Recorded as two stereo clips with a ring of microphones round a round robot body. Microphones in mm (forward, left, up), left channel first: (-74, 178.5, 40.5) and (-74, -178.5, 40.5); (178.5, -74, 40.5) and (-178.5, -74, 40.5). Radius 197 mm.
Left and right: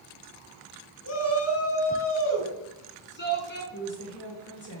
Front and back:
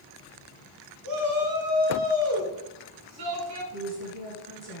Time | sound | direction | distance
1.0 | a shout | 135° left | 4 m
3.7 | a woman speaking | 140° left | 6 m